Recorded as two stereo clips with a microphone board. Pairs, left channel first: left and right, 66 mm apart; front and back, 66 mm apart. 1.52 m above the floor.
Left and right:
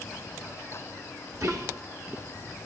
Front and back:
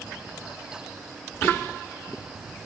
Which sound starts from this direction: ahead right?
Whispering, at 1.3 s.